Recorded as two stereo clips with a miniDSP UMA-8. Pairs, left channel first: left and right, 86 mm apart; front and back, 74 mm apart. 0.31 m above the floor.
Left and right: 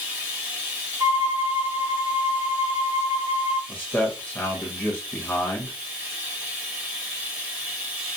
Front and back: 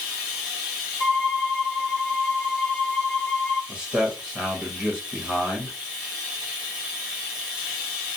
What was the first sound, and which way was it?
Running water, 110° right.